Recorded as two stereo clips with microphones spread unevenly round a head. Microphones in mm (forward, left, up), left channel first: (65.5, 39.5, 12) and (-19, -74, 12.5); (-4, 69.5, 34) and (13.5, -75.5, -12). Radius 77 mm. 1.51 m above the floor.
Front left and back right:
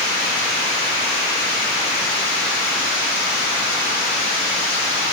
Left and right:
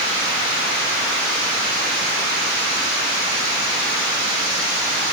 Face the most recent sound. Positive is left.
No sound to turn to.